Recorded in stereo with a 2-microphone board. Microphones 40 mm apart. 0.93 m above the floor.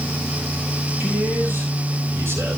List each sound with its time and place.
1.0 s a man speaking: 70° right (ahead or behind), 6.5 m; by 2.6 s 80° right, 5 m